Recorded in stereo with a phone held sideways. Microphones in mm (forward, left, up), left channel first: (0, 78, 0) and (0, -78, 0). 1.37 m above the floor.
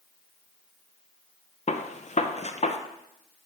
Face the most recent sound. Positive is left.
turn(degrees=50)  # may be behind; listen again after turning